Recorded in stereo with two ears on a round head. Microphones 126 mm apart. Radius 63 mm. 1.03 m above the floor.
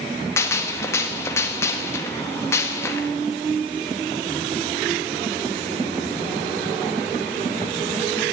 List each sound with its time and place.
0.4 s a gunshot: 20° left (ahead or behind), 1.4 m